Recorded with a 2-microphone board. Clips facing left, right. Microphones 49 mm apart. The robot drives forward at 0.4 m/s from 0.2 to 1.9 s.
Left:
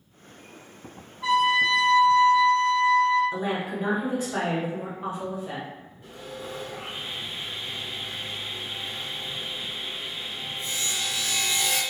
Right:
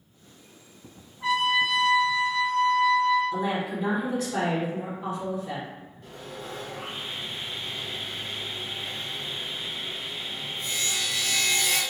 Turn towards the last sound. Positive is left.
turn(degrees=20)  # may be behind; listen again after turning